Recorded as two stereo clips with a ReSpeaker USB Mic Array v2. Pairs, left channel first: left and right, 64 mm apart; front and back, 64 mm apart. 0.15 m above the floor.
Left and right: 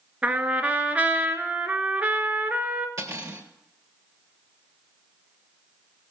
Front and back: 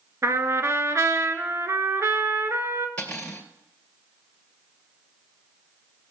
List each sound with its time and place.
0.2 s a trumpet: 155° right, 1.1 m
3.0 s cutlery clinking: 65° right, 1.8 m